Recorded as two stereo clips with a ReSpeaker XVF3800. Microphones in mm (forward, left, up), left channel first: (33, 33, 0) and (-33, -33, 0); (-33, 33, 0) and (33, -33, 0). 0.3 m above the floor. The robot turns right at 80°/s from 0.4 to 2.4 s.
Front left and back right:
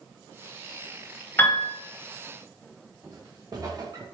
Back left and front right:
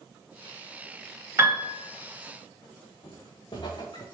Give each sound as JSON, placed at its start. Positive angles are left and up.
{"t": 1.4, "sound": "a piano", "azimuth_deg": -5, "distance_m": 1.0}
{"t": 3.0, "sound": "footsteps", "azimuth_deg": 170, "distance_m": 2.5}